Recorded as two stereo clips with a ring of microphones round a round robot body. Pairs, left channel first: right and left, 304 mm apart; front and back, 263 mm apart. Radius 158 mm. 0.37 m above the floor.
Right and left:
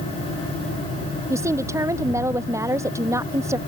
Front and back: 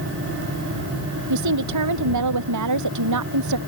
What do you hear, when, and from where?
1.3 s a woman speaking: 170° left